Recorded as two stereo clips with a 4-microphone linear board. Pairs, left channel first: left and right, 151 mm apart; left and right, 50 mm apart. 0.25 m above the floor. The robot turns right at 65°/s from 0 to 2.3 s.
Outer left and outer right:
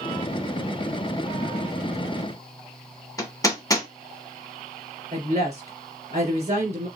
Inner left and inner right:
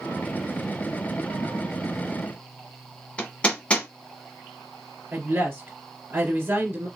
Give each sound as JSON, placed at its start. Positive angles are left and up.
{"t": 3.2, "sound": "hammering", "side_deg": 25, "distance_m": 1.4}
{"t": 5.1, "sound": "a woman speaking", "side_deg": -50, "distance_m": 3.5}